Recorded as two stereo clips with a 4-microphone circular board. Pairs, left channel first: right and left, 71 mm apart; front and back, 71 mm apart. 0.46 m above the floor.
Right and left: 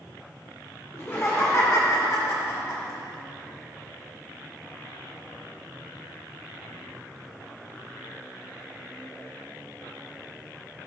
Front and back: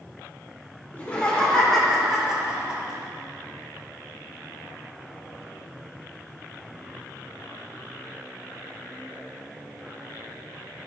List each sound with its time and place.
0.9 s laughter: 55° right, 1.4 m; by 3.0 s 115° right, 1.6 m